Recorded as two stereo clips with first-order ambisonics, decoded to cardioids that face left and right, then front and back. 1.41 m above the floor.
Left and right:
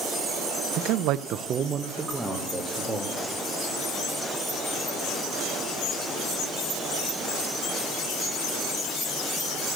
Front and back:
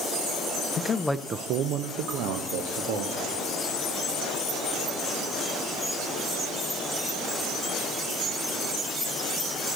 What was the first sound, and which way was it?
A man speaking, 55° right.